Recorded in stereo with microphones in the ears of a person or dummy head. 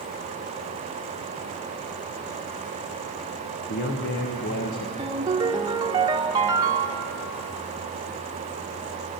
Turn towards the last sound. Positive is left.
turn(degrees=-20)  # may be behind; listen again after turning